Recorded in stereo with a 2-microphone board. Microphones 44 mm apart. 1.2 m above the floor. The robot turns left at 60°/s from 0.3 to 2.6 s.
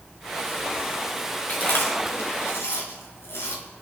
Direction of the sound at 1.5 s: 40° left (ahead or behind).